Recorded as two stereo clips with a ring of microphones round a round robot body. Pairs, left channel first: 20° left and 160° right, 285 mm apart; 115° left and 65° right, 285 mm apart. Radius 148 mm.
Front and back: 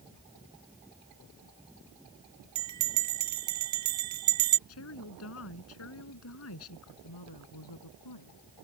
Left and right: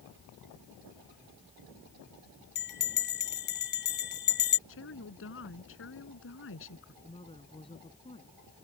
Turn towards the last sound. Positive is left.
turn(degrees=40)